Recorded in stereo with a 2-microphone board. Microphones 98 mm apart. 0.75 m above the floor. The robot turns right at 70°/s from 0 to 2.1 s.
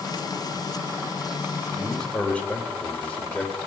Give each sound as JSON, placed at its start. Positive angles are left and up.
{"t": 1.7, "sound": "a man speaking", "side_deg": -15, "distance_m": 2.5}